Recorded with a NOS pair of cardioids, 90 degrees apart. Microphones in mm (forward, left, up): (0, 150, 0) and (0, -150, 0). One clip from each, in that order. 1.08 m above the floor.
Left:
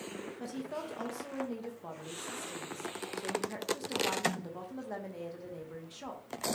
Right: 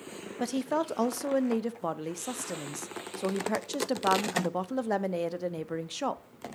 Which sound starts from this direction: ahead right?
A woman speaking, at 0.4 s.